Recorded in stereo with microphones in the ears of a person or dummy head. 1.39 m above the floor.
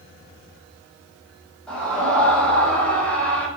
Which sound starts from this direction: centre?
A scream, at 1.7 s.